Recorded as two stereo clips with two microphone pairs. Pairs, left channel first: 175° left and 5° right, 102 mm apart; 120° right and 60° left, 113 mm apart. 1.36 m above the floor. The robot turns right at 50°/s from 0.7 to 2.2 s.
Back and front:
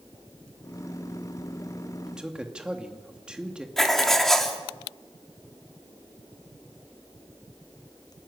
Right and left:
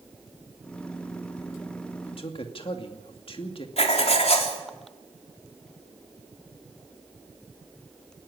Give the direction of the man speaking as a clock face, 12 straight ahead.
3 o'clock.